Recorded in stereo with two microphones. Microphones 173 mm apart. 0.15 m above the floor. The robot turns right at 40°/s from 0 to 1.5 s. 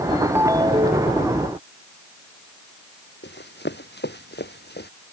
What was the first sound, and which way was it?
A ringtone, 170° right.